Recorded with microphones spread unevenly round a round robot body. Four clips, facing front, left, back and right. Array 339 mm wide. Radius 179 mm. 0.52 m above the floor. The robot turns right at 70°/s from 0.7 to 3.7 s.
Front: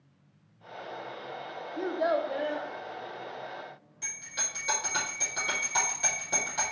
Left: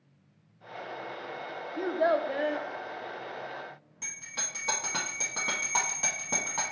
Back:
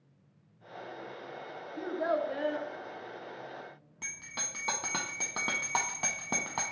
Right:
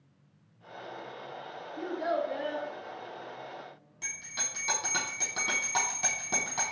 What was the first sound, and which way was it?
A child speaking, 55° left.